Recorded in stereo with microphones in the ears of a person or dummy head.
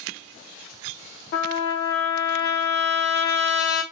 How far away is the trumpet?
About 0.6 m.